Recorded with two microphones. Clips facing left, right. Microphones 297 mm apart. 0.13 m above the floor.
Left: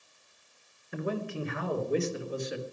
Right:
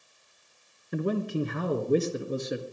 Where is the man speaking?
40° right (ahead or behind), 1.9 m; by 2.6 s 50° right (ahead or behind), 2.5 m.